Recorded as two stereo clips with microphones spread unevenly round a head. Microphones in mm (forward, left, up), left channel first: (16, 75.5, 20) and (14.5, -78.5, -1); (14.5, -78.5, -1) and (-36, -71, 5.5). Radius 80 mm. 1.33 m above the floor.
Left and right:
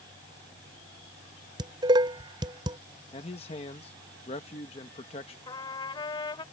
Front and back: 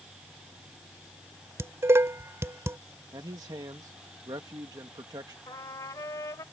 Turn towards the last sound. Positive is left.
turn(degrees=35)